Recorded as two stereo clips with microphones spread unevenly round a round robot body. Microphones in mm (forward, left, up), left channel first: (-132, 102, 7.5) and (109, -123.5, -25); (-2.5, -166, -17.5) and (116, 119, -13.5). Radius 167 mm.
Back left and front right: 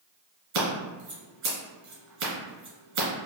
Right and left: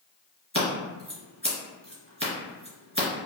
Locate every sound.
0.5 s scissors: 5° right, 1.9 m